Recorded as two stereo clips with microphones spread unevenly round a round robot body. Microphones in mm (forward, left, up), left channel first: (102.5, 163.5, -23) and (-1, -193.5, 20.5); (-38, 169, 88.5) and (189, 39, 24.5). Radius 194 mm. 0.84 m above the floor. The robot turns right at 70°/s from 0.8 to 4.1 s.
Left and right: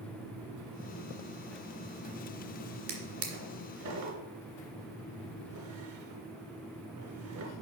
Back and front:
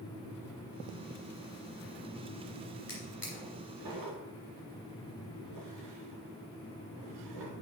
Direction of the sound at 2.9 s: 145° right.